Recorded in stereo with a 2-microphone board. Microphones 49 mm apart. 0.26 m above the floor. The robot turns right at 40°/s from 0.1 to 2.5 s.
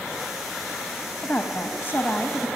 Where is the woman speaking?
80° left, 1.5 m; by 2.5 s 130° left, 1.5 m.